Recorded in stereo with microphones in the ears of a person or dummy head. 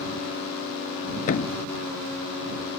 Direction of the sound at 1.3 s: 45° left (ahead or behind).